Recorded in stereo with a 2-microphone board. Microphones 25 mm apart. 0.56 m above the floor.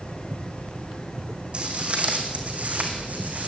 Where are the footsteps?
45° right (ahead or behind), 2 m; by 3.5 s 80° right, 2.5 m.